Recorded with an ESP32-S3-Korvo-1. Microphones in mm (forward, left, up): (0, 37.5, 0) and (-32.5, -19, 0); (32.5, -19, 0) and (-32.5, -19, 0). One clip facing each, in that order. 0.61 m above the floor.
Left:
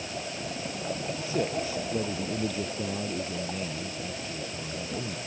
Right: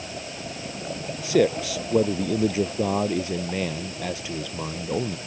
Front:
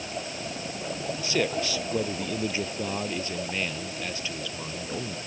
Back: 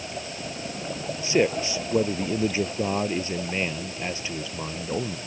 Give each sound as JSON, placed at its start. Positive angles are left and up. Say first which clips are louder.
{"t": 1.2, "sound": "a man speaking", "louder": "right 10 dB, back 5 dB", "azimuth_deg": -110}